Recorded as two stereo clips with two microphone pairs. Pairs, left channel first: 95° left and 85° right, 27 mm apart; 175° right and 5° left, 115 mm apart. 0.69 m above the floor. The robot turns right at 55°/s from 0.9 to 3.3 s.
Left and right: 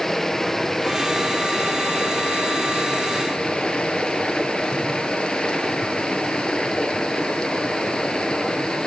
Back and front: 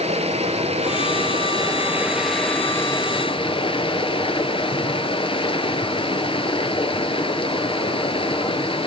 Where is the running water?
20° left, 1.4 m; by 8.9 s 150° left, 1.4 m.